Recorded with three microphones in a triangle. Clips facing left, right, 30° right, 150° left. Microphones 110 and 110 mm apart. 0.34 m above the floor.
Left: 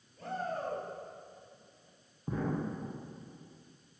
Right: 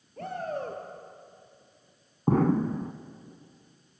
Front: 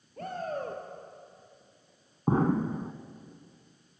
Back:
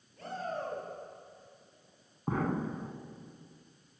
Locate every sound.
0.2 s a shout: 70° right, 6.5 m
2.3 s an explosion: 90° right, 1.2 m